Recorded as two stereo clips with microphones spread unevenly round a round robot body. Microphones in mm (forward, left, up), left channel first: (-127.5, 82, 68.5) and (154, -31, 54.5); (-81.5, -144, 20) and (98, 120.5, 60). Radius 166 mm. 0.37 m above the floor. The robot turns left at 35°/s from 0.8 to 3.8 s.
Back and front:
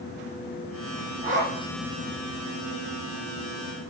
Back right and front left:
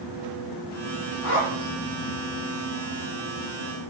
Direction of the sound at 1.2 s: 85° right.